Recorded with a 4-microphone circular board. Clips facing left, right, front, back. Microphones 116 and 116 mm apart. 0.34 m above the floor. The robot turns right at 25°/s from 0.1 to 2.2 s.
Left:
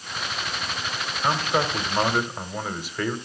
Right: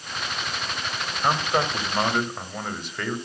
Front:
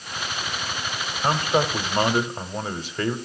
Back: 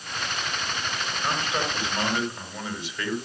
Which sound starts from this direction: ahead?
A man speaking, at 1.2 s.